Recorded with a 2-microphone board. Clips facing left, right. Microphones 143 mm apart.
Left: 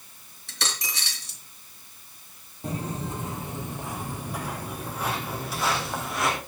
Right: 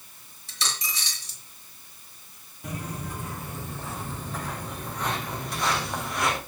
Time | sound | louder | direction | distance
0.5 | a dropped coin | even | 70° left (ahead or behind) | 3 m
2.6 | footsteps | left 4 dB | 30° left (ahead or behind) | 1.9 m